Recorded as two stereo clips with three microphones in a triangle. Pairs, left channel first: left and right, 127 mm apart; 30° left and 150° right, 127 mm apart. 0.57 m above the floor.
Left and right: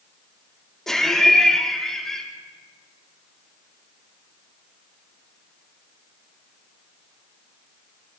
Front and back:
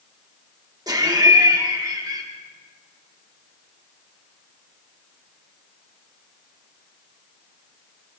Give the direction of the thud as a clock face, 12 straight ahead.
I don't hear a thud.